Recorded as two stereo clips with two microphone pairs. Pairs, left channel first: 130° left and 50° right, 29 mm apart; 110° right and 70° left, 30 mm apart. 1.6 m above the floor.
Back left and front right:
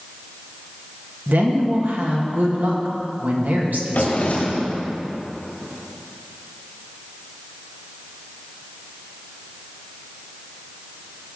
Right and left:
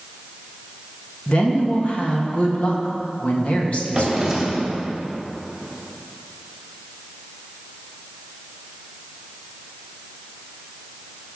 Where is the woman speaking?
60° right, 2 m.